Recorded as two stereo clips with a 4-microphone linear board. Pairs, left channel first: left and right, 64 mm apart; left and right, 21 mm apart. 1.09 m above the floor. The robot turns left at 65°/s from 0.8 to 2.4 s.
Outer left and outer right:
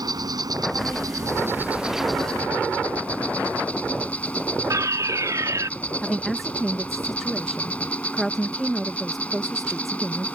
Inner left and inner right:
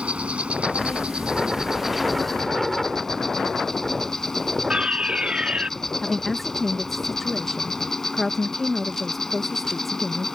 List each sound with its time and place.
0.0 s an insect: 95° right; by 10.4 s 160° left
4.7 s a fire alarm: 60° right (ahead or behind)
6.0 s a woman speaking: centre (ahead or behind)